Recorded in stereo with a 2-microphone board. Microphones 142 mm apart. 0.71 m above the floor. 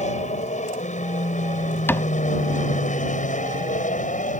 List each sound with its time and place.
0.0 s an aircraft: 55° left (ahead or behind); by 4.4 s 65° left (ahead or behind)
1.9 s a cupboard door: 15° left (ahead or behind)